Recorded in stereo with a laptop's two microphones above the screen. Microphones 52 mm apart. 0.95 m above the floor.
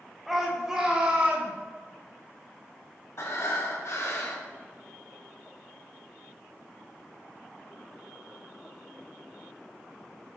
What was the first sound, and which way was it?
A shout, 5° right (ahead or behind).